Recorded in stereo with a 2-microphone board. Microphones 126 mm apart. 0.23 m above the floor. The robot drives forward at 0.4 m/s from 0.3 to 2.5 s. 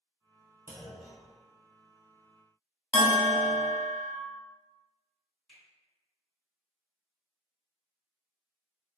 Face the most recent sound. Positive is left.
turn(degrees=0)  # may be behind; listen again after turning